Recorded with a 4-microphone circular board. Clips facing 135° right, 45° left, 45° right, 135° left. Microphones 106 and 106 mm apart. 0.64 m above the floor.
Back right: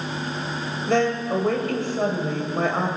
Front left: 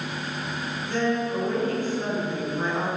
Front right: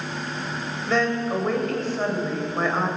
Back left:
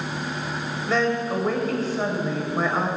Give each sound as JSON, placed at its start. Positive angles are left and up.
{"t": 0.9, "sound": "a woman speaking", "azimuth_deg": -135, "distance_m": 3.0}